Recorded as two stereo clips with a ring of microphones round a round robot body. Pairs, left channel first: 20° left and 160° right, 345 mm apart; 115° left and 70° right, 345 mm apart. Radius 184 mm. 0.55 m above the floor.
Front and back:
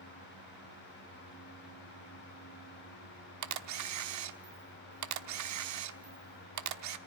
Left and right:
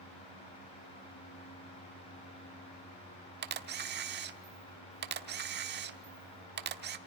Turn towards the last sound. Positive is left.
turn(degrees=-125)